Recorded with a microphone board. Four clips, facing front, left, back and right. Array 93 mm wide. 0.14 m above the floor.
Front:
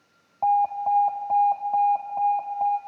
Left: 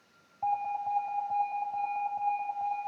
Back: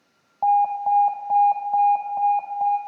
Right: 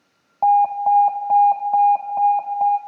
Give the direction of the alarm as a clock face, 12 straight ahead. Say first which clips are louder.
Right 15 dB, back 2 dB; 3 o'clock.